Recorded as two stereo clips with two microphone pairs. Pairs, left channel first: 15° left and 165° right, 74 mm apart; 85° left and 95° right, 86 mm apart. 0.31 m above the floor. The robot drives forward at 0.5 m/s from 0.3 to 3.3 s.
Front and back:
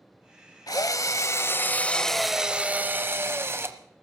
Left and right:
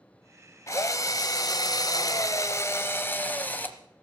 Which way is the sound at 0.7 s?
35° left.